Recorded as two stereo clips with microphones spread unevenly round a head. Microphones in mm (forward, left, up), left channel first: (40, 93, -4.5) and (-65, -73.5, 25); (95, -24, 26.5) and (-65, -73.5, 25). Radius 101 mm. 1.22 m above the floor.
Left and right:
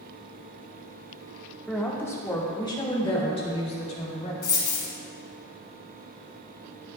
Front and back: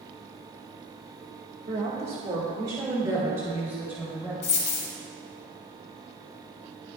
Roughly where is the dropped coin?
Ahead.